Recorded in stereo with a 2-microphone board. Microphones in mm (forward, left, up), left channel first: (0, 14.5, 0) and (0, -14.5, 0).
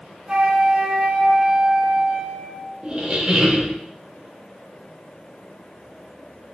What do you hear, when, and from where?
0.3 s a flute: 30° right (ahead or behind), 0.6 m
2.8 s a squeak: 30° right (ahead or behind), 0.7 m